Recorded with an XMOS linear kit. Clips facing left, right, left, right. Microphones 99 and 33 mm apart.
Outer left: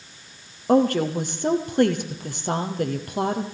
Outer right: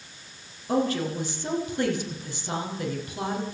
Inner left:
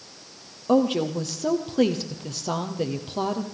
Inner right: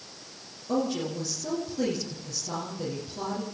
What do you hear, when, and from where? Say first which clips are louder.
0.7 s a woman speaking: outer left 7 dB, inner left 7 dB; 50° left (ahead or behind), 3.5 m